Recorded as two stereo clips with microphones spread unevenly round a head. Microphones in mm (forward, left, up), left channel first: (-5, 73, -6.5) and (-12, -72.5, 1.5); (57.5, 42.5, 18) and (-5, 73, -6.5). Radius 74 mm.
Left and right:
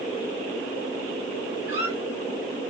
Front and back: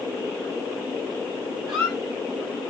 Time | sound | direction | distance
1.7 | a squeak | 145° right | 2.5 m